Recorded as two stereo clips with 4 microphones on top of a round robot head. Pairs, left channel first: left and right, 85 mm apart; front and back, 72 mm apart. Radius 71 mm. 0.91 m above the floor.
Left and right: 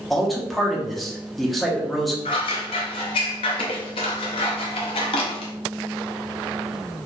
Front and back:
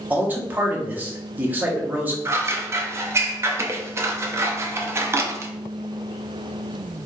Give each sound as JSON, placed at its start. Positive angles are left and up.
{"t": 0.1, "sound": "a man speaking", "azimuth_deg": 180, "distance_m": 0.9}
{"t": 2.2, "sound": "scissors", "azimuth_deg": 130, "distance_m": 0.5}